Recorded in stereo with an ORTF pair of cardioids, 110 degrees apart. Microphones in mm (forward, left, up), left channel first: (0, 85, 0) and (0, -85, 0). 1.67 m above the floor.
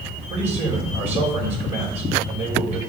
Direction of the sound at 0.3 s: 40° right.